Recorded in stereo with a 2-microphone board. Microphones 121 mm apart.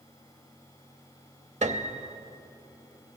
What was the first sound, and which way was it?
A piano, 70° right (ahead or behind).